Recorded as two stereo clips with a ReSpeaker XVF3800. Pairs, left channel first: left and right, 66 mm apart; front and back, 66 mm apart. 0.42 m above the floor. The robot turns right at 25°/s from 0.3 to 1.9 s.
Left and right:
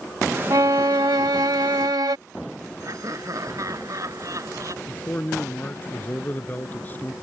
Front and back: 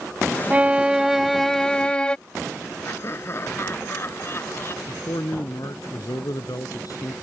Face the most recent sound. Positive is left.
turn(degrees=25)